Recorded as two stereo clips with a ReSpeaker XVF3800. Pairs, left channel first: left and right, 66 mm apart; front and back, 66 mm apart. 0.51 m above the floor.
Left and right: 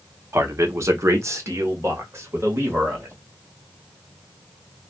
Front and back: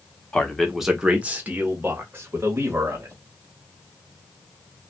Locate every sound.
0.3 s a man speaking: 70° right, 0.8 m; by 3.1 s 135° right, 2 m